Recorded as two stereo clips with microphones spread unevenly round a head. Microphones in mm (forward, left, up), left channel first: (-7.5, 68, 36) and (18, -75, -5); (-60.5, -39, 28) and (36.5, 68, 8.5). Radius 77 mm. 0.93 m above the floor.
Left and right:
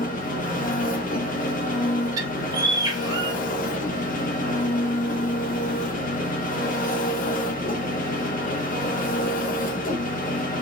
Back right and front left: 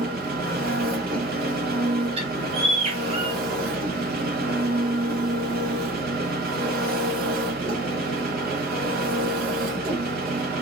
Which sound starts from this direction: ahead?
A bird, at 2.2 s.